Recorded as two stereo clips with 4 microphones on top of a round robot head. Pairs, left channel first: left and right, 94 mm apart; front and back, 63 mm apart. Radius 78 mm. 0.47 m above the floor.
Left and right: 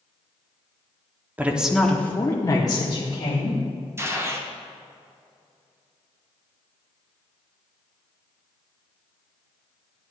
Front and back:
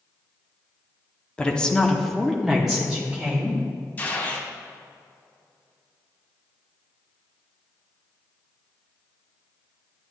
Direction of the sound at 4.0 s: 50° right.